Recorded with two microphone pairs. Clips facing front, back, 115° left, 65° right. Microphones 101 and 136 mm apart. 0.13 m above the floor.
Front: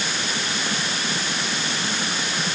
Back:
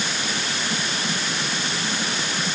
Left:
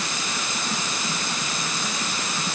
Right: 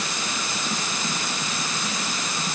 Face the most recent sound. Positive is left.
No sound to turn to.